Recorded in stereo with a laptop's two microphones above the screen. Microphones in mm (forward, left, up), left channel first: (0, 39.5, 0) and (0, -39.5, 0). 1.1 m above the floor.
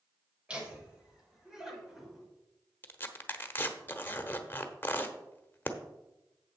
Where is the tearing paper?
25° left (ahead or behind), 0.9 m.